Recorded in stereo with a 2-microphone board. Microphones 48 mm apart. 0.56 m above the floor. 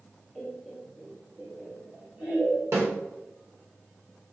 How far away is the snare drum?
About 1.1 m.